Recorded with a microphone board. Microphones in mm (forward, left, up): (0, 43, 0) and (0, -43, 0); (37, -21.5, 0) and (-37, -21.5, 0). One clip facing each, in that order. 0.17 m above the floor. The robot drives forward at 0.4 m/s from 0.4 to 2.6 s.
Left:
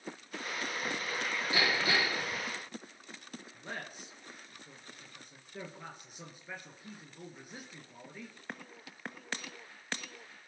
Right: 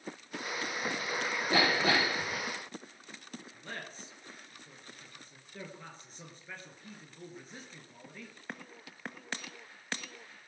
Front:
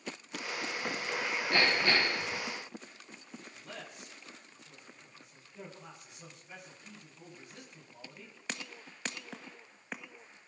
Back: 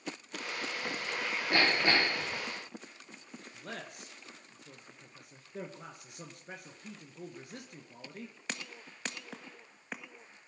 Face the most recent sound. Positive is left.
turn(degrees=170)